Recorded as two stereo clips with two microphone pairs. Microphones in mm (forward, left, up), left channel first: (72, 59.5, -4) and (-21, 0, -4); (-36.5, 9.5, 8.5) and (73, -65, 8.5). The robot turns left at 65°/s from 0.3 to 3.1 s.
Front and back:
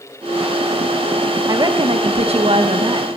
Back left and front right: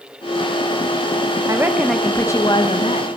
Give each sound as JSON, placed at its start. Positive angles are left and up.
{"t": 1.5, "sound": "a woman speaking", "azimuth_deg": -90, "distance_m": 1.0}